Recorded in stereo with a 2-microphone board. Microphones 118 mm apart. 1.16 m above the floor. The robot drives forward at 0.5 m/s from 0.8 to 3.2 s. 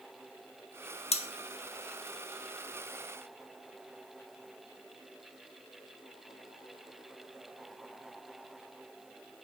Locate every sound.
1.1 s cutlery clinking: 65° left (ahead or behind), 0.7 m; by 1.3 s 60° left (ahead or behind), 0.7 m